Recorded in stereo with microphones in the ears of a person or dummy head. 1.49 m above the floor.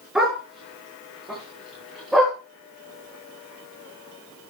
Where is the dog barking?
Centre (ahead or behind), 6.5 m.